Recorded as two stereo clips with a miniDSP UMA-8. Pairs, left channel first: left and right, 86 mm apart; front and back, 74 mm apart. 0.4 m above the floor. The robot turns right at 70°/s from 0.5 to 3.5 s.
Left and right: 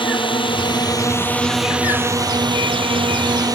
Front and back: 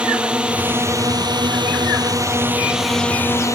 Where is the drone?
105° left; by 3.6 s 45° right.